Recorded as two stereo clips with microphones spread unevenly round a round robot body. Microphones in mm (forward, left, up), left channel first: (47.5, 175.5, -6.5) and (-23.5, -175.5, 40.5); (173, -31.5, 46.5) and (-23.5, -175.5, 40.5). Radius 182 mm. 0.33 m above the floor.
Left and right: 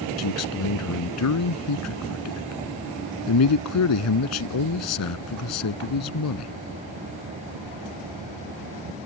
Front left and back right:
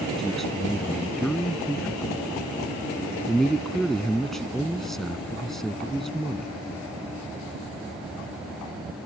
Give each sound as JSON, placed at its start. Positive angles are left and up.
{"t": 0.2, "sound": "a man speaking", "azimuth_deg": 125}